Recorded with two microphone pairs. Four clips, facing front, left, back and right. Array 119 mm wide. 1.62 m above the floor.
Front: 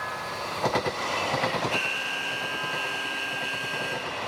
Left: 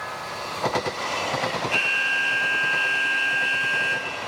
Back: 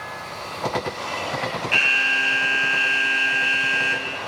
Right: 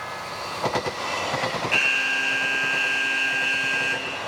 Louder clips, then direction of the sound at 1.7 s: Even, back 7 dB; straight behind.